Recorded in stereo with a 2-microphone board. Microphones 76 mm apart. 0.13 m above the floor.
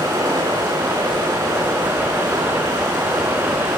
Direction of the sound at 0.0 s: 75° right (ahead or behind).